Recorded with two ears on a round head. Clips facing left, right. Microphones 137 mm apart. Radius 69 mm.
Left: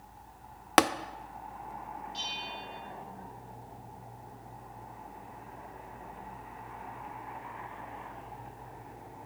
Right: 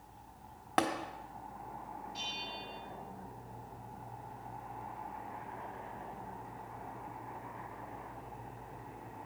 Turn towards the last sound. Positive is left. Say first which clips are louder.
# left 3 dB
turn(degrees=35)  # may be behind; listen again after turning